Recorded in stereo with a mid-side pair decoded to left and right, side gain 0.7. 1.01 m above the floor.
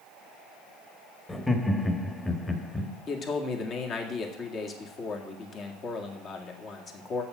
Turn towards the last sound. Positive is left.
turn(degrees=40)